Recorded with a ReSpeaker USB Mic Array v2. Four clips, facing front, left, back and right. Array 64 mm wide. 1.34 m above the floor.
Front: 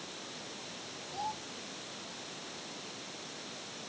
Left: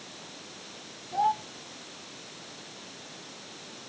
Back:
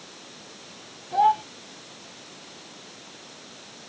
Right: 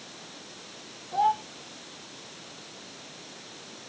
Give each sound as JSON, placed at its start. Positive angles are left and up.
{"t": 1.1, "sound": "a child speaking", "azimuth_deg": -170}